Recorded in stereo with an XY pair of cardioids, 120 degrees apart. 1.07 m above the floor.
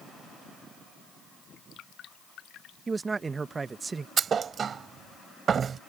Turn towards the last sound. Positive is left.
turn(degrees=-40)